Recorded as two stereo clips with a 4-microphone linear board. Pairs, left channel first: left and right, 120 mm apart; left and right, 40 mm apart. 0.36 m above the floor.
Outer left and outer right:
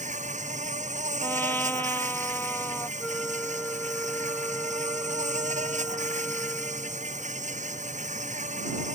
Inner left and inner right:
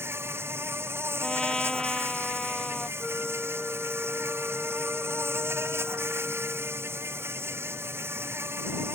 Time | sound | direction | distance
0.0 | an insect | 85° right | ?
1.2 | a trumpet | 15° left (ahead or behind) | ?
3.0 | a flute | 5° left (ahead or behind) | ?